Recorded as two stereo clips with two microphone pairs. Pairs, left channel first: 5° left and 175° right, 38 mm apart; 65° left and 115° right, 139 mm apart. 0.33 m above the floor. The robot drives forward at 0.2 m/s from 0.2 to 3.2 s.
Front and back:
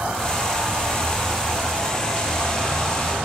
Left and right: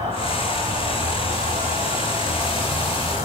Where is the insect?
155° right, 1.3 m; by 3.2 s 165° right, 1.8 m.